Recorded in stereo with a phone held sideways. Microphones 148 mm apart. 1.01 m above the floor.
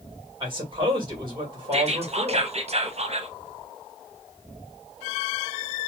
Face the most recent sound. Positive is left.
turn(degrees=-45)  # may be behind; listen again after turning